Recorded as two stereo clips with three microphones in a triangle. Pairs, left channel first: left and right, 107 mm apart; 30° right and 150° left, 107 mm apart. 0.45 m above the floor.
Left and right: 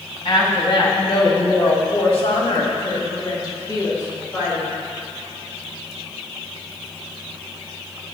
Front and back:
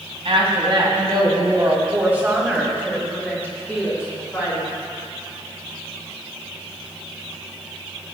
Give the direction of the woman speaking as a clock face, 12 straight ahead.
8 o'clock.